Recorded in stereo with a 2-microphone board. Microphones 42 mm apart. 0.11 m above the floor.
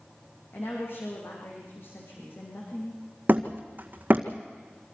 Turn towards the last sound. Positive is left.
turn(degrees=-45)  # may be behind; listen again after turning